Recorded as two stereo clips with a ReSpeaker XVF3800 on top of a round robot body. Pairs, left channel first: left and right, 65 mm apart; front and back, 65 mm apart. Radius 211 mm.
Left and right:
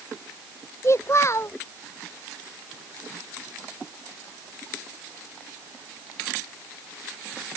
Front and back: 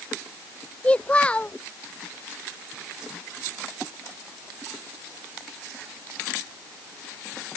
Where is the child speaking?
65° left.